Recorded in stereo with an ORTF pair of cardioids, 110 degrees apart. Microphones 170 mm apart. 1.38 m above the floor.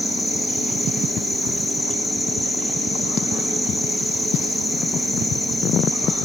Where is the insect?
Straight ahead, 1.0 m.